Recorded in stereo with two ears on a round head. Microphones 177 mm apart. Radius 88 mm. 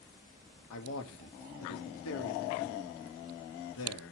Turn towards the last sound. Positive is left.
turn(degrees=80)